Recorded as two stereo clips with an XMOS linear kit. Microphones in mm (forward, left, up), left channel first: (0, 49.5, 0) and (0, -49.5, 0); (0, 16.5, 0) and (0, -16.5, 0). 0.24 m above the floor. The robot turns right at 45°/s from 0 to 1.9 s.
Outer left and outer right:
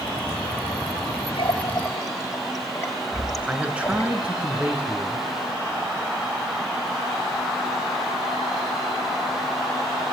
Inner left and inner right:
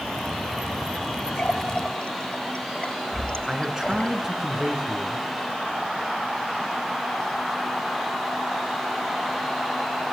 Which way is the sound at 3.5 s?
15° right (ahead or behind).